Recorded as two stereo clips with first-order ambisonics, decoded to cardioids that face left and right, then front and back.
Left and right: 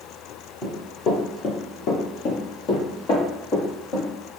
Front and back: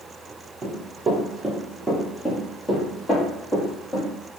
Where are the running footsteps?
145° left, 1.4 m; by 4.1 s 60° left, 3 m.